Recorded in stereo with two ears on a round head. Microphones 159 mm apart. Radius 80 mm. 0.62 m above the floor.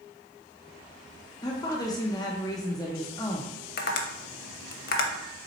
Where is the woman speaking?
20° left (ahead or behind), 0.5 m.